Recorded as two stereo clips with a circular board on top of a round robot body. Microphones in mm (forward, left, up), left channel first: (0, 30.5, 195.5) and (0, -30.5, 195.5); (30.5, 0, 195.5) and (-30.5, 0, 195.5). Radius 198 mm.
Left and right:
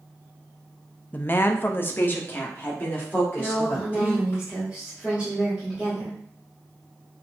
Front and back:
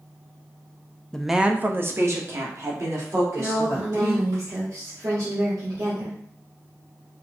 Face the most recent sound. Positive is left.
turn(degrees=-165)